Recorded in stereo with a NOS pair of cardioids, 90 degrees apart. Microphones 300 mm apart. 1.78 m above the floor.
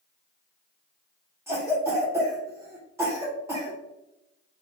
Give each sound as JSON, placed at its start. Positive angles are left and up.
{"t": 1.5, "sound": "a cough", "azimuth_deg": -10, "distance_m": 0.6}